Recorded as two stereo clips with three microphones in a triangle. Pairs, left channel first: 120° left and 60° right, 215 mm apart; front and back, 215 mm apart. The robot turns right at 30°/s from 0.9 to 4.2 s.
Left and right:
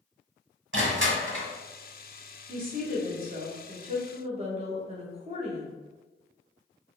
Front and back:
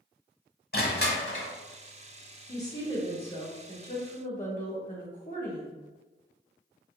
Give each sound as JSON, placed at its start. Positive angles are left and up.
{"t": 0.7, "sound": "crushing", "azimuth_deg": -40, "distance_m": 0.9}
{"t": 2.5, "sound": "a woman speaking", "azimuth_deg": -70, "distance_m": 1.4}